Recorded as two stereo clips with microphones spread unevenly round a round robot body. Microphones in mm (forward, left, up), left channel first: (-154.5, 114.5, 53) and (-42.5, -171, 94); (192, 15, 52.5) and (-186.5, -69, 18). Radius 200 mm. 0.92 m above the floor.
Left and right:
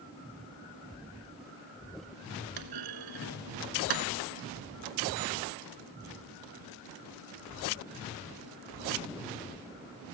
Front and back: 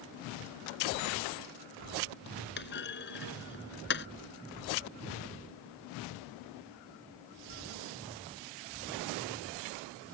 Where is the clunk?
50° right.